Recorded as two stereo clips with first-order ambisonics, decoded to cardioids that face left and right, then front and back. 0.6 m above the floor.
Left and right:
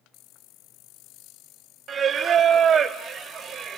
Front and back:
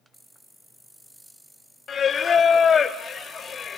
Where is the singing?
45° right, 0.7 m.